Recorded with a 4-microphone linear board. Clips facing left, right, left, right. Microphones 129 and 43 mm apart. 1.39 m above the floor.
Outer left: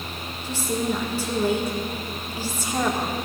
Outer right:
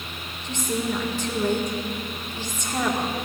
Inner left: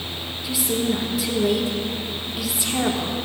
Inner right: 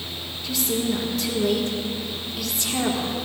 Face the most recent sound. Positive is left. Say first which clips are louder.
# outer left 1 dB, inner left 1 dB
turn(degrees=10)  # may be behind; listen again after turning